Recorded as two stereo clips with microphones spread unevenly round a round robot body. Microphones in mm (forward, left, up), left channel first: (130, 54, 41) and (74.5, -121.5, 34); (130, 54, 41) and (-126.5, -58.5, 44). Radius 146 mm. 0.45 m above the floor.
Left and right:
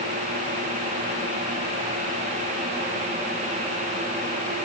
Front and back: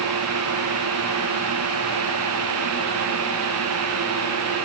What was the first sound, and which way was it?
Only background noise.